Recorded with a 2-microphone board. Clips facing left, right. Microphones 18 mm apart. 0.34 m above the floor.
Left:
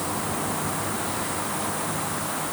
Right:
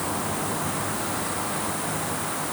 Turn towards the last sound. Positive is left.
No sound to turn to.